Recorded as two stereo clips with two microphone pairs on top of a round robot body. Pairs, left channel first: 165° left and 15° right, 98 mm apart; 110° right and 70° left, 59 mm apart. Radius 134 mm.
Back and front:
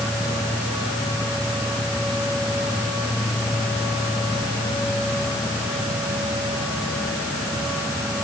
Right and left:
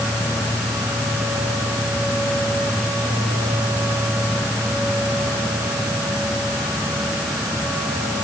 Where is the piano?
No piano in this recording.